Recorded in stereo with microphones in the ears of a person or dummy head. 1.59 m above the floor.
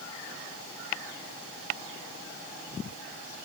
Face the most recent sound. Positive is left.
No sound to turn to.